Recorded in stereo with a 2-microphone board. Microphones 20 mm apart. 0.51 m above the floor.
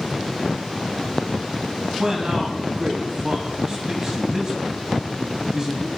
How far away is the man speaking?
About 3.5 m.